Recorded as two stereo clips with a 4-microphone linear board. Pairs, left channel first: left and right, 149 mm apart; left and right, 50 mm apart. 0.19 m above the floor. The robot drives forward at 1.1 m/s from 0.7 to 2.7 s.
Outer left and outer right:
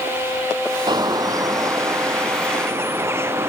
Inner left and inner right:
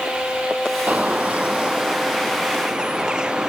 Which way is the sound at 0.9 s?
30° right (ahead or behind).